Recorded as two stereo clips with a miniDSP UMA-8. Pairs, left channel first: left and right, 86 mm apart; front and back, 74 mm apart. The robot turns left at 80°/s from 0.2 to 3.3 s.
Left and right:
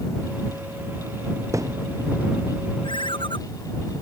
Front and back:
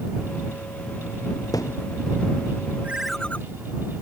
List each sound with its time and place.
1.5 s a thud: 35° right; by 1.8 s 60° right
2.8 s a ringtone: 110° left; by 3.4 s 75° left